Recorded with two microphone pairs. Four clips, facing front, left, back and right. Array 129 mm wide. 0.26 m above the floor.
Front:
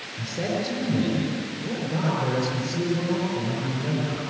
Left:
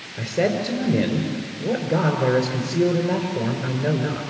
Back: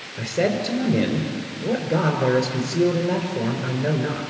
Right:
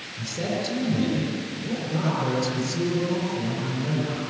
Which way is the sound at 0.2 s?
140° left.